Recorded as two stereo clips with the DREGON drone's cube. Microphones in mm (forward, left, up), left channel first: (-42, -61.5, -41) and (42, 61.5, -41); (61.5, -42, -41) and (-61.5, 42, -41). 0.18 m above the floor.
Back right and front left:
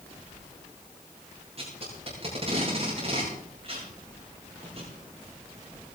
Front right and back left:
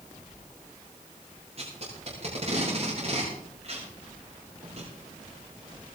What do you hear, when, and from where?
1.6 s tape being pulled: 100° left, 8 m